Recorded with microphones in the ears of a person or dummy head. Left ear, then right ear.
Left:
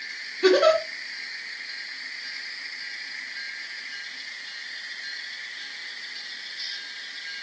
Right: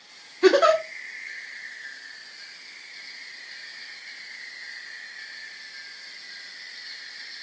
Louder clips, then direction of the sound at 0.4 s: Right 1 dB; 35° right (ahead or behind).